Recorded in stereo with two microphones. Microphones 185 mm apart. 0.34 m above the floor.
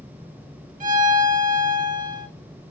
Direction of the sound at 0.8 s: 45° right (ahead or behind).